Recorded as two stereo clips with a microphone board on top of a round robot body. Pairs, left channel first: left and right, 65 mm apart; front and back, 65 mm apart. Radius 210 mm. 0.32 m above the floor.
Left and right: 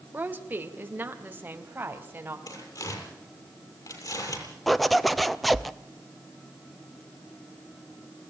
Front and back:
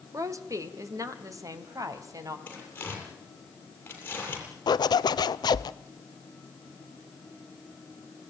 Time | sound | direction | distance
0.1 | a woman speaking | 150° right | 2.5 m
2.5 | tearing paper | 65° left | 7 m
4.7 | a zipper | straight ahead | 0.6 m